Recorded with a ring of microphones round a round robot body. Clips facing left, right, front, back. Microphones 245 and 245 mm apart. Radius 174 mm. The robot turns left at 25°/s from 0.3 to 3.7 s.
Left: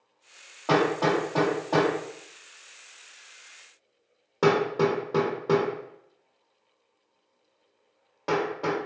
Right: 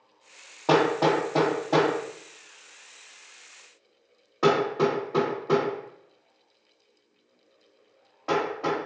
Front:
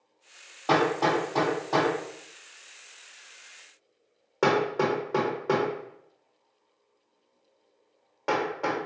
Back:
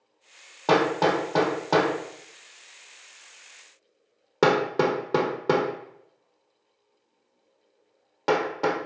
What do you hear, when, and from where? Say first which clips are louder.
0.7 s hammering: right 2 dB, back 3 dB; 145° right, 0.9 m; by 8.8 s 135° left, 0.9 m